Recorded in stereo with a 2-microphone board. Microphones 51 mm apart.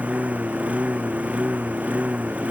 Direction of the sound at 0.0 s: 30° right (ahead or behind).